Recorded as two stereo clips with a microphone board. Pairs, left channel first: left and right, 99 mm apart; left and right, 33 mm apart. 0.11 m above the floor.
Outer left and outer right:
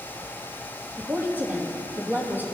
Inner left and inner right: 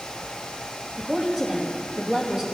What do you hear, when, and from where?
0.9 s a woman speaking: 20° right (ahead or behind), 3.5 m